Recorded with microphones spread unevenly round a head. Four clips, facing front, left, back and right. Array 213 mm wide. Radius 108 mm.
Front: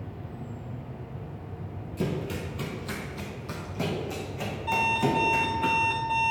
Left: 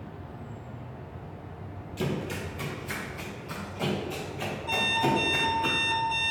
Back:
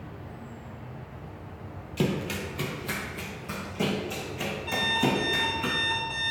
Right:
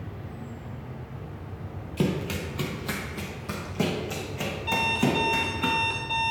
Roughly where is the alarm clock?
Ahead.